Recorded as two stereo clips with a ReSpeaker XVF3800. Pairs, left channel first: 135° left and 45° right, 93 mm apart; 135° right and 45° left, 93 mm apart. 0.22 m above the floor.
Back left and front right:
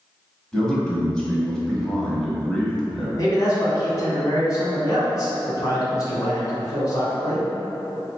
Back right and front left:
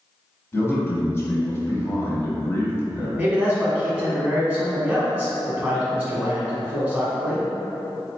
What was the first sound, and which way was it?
A man speaking, 150° right.